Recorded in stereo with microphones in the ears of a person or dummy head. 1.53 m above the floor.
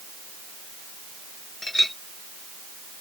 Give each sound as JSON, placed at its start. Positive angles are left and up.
{"t": 1.6, "sound": "a clink", "side_deg": 0}